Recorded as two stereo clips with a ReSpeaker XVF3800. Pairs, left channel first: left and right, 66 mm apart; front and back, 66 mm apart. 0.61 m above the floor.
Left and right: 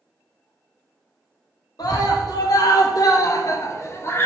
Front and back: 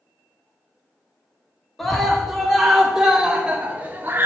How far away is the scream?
About 1.8 m.